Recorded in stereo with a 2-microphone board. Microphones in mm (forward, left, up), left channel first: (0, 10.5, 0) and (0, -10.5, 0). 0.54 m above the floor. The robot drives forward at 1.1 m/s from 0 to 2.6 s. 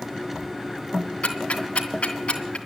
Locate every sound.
1.2 s ticking: 75° left (ahead or behind), 2.5 m; by 2.6 s 70° left (ahead or behind), 2.5 m